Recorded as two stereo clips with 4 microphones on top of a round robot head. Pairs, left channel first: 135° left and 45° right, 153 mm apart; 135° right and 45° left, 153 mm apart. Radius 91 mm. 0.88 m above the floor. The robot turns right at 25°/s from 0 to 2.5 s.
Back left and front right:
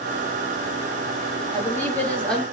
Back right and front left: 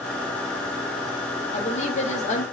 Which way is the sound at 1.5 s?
160° right.